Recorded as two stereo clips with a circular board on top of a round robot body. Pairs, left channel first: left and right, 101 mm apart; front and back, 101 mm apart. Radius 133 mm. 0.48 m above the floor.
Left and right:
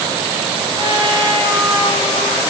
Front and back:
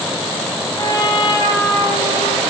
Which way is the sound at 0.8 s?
45° right.